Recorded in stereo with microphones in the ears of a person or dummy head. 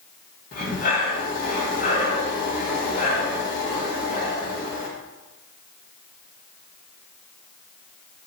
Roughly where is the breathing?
Left.